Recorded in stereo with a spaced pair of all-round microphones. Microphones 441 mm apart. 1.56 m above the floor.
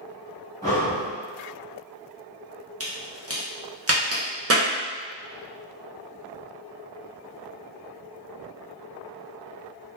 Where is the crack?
35° right (ahead or behind), 0.6 m.